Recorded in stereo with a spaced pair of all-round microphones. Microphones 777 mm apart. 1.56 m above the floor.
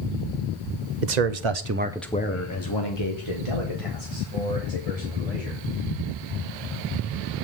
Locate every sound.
1.0 s a man speaking: 70° right (ahead or behind), 1.0 m; by 5.6 s 50° left (ahead or behind), 4 m